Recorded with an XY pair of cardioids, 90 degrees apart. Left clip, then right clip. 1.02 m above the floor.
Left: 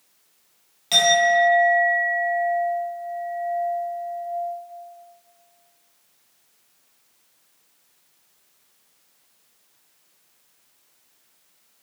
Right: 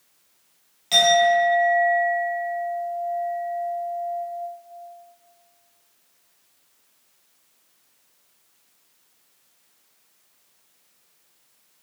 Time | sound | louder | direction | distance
0.9 | a clink | even | 20° left | 0.9 m